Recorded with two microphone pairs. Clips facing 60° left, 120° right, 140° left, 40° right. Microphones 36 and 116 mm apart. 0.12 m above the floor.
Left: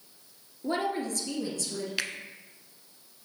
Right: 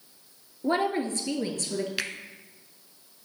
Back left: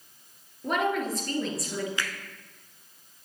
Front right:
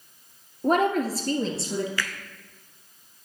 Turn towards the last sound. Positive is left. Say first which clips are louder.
# left 4 dB, front right 2 dB
turn(degrees=160)